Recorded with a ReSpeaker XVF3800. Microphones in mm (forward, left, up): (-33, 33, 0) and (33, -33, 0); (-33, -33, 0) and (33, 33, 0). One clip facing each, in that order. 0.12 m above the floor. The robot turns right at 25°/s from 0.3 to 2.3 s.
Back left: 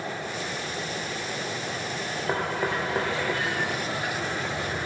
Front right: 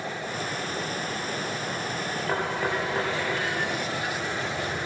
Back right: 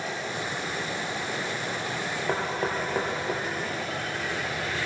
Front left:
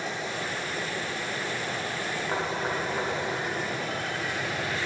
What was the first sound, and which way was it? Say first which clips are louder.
Knocking: back left 1 dB, back right 2 dB; 150° right.